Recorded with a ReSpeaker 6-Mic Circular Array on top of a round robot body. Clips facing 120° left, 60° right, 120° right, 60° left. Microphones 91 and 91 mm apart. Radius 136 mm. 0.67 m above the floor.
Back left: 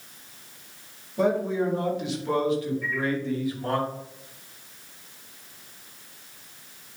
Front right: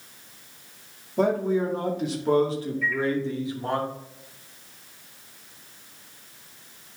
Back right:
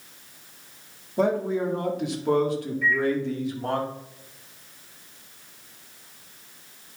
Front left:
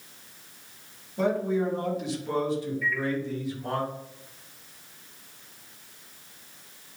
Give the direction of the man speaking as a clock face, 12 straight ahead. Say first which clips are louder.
Front right 1 dB, back right 2 dB; 3 o'clock.